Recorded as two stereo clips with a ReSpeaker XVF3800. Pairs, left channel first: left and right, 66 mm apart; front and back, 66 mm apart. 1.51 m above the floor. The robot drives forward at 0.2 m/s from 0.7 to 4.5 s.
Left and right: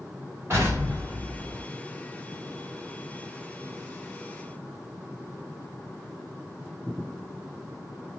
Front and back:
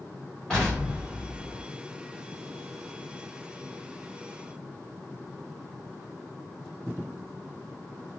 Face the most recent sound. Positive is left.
turn(degrees=-110)